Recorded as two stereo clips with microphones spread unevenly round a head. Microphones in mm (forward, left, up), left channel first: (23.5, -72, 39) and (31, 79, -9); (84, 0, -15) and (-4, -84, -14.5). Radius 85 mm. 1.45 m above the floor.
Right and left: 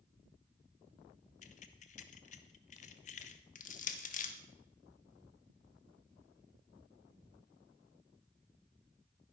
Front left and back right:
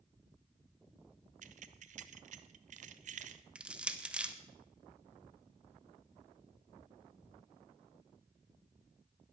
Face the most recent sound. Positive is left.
turn(degrees=-55)